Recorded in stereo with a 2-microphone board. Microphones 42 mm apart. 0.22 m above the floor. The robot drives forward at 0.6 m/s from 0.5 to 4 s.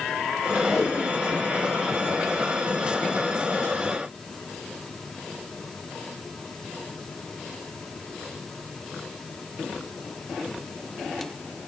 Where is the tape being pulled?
5° right (ahead or behind), 5.5 m; by 3.2 s 10° right (ahead or behind), 4 m.